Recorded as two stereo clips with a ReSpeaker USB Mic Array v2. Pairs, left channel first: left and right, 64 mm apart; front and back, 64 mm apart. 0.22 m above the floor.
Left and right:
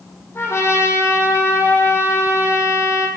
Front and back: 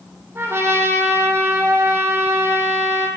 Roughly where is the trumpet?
Behind left.